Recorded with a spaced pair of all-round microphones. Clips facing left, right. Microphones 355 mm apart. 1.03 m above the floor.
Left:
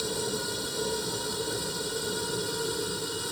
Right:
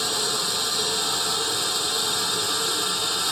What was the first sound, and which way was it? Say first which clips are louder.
A machine running: even; 85° right.